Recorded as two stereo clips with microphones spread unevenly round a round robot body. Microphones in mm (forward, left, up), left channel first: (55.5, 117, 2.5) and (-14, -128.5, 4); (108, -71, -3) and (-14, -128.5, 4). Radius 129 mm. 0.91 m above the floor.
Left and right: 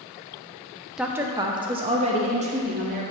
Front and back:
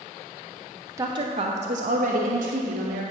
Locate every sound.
1.0 s a woman speaking: 170° left, 0.6 m; by 3.0 s 170° right, 1.6 m